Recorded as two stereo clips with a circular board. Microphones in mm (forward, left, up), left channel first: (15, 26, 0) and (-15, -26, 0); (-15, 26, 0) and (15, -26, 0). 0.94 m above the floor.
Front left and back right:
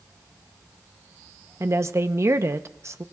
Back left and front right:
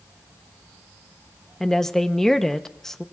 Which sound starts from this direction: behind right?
A woman speaking, at 1.6 s.